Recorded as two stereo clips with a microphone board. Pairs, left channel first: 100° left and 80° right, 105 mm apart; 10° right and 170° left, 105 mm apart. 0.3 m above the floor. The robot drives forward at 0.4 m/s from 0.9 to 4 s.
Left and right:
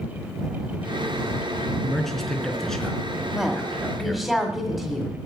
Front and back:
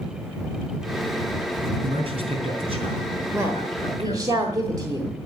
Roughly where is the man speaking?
Behind.